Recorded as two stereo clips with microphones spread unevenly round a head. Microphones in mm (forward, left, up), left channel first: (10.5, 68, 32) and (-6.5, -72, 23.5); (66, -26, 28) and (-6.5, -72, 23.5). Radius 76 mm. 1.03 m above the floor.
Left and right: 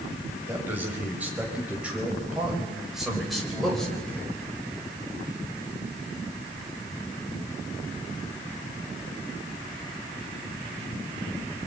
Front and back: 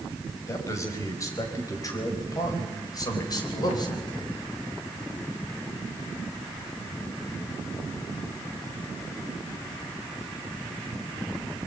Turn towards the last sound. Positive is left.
turn(degrees=0)